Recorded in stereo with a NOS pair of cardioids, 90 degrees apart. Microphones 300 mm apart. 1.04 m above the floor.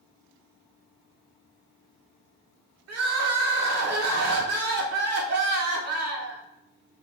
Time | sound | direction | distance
2.9 | crying | 55° right | 1.8 m